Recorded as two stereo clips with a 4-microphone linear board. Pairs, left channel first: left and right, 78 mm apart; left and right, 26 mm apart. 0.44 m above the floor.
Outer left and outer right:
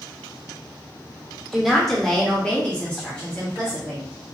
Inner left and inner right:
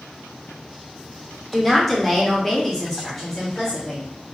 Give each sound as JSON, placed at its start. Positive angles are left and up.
{"t": 1.5, "sound": "a woman speaking", "side_deg": 5, "distance_m": 0.9}